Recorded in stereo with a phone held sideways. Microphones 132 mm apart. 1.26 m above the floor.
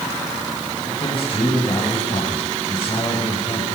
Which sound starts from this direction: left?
A man speaking, at 0.9 s.